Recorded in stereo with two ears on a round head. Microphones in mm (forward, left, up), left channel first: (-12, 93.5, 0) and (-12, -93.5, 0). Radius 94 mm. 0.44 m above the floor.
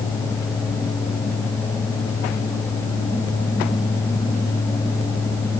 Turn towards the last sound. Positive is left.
No sound to turn to.